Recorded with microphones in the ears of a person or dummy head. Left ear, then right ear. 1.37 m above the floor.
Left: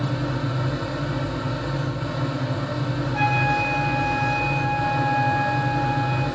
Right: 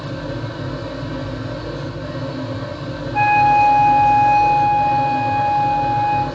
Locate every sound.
0.0 s a fan: 40° left (ahead or behind), 0.8 m
3.1 s a flute: 10° left (ahead or behind), 0.9 m